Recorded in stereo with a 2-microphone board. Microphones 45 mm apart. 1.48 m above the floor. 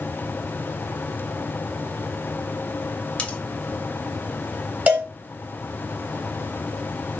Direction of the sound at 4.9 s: 30° right (ahead or behind).